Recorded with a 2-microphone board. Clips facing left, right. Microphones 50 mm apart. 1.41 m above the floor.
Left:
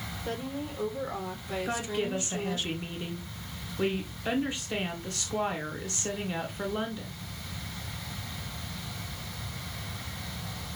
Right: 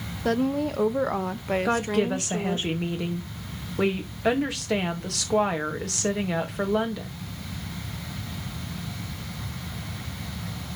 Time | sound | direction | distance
0.2 | a woman speaking | 80° right | 1.2 m
1.6 | a woman speaking | 85° right | 2.5 m